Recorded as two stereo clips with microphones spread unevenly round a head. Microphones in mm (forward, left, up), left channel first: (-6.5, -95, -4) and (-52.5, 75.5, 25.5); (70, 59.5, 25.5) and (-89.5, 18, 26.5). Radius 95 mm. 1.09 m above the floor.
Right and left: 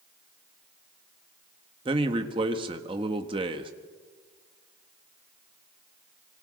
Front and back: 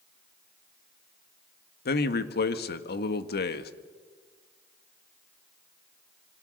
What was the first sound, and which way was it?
A man speaking, 40° left.